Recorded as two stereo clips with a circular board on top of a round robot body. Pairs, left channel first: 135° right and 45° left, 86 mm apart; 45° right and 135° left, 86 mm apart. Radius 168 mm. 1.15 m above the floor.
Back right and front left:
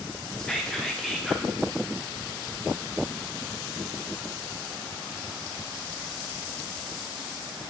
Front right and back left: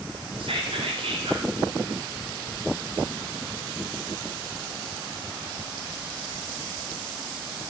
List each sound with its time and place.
0.4 s whispering: 140° left, 1.7 m